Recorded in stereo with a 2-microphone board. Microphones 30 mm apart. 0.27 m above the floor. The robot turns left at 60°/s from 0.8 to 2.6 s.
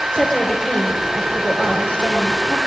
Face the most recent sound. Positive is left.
turn(degrees=45)